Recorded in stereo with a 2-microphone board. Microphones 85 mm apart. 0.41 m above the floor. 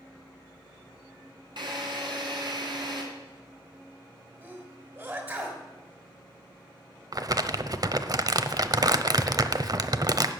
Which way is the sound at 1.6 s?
60° right (ahead or behind).